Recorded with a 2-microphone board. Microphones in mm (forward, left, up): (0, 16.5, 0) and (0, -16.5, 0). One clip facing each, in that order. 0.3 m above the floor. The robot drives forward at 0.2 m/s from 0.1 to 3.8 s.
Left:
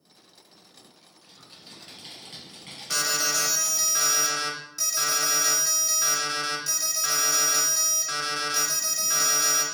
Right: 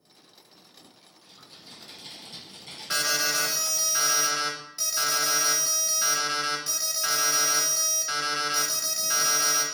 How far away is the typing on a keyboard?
About 2.5 m.